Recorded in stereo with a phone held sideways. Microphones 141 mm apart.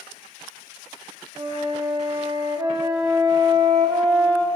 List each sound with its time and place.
1.4 s a flute: 35° right (ahead or behind), 1.0 m